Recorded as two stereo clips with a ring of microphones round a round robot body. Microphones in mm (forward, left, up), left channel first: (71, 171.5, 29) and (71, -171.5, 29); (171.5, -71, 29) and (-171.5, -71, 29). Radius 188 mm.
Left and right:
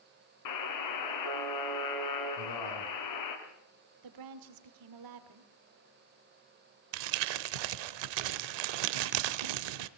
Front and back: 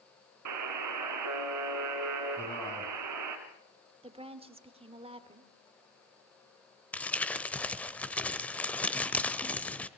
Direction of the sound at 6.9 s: 85° right.